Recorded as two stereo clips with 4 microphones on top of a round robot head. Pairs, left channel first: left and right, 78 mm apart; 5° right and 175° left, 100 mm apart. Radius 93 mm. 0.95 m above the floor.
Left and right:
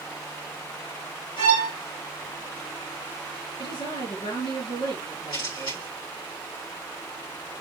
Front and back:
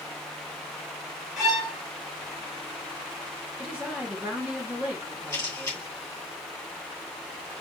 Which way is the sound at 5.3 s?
55° left.